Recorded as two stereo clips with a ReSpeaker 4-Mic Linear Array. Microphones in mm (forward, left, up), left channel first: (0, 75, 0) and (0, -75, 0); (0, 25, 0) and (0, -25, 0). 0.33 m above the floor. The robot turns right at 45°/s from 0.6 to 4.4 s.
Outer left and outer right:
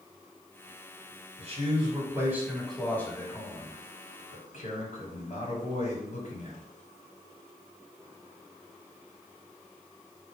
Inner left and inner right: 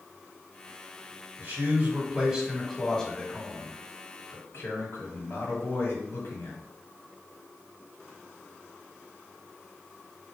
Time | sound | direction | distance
1.4 | a man speaking | 60° right | 1.8 m